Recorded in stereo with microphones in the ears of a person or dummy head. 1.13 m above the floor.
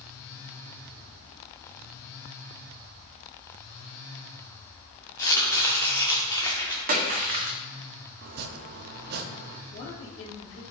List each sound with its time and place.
5.2 s chopping: 20° left (ahead or behind), 0.8 m
6.9 s a splash: 45° right (ahead or behind), 1.2 m
8.2 s chopping: 50° right (ahead or behind), 0.7 m
9.7 s a woman speaking: 60° left (ahead or behind), 2.5 m